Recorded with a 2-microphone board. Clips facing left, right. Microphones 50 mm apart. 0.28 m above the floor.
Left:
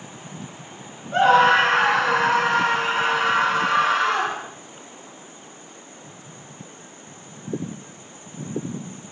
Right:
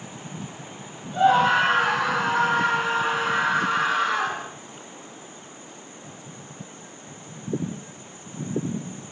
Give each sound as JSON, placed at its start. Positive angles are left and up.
{"t": 1.1, "sound": "a scream", "side_deg": 65, "distance_m": 3.0}